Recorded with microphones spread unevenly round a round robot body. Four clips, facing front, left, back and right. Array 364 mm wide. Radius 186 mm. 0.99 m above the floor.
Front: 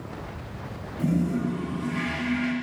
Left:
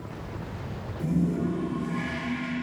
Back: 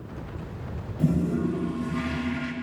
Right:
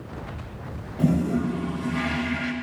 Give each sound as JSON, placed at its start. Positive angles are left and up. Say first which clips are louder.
{"t": 1.0, "sound": "a toilet flushing", "louder": "right 4 dB, even", "azimuth_deg": -130, "distance_m": 1.0}